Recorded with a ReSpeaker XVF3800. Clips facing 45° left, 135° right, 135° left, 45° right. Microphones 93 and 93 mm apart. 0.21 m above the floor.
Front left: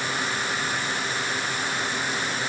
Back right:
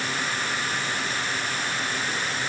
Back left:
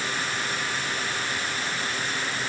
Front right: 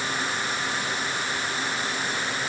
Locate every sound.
Only background noise.